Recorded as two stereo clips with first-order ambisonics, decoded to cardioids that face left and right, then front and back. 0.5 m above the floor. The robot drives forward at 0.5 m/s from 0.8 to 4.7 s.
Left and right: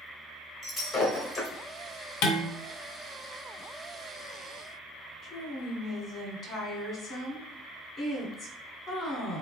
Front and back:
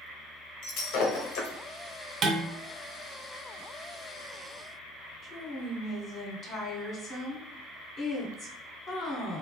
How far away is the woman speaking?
About 1.2 m.